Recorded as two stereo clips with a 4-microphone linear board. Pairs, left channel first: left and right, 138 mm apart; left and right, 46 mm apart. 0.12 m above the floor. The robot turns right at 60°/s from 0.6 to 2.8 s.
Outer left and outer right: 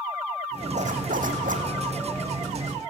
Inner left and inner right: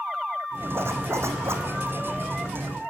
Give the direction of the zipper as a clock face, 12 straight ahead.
4 o'clock.